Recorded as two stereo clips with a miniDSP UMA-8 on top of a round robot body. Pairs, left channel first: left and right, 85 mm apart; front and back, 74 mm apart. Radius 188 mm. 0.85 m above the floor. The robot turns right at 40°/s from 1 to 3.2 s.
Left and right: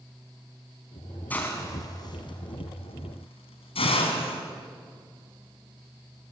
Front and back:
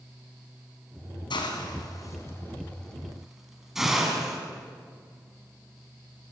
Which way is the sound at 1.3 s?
20° left.